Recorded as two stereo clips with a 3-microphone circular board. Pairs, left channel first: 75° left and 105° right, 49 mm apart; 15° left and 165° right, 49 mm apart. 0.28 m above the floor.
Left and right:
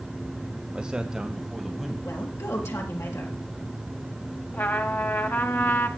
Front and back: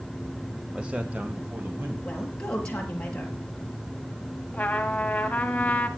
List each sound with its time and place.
0.7 s a man speaking: 140° right, 1.3 m; by 1.9 s 165° left, 2.0 m
2.0 s a woman speaking: 85° left, 4.5 m
4.5 s a trumpet: 65° left, 1.6 m